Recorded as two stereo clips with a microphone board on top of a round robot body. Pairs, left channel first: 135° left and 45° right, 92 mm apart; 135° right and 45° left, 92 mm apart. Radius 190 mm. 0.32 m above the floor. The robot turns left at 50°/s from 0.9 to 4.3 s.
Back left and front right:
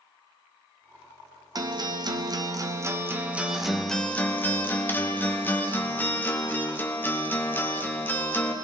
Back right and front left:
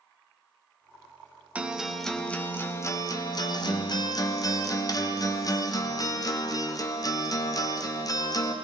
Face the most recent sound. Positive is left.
turn(degrees=-165)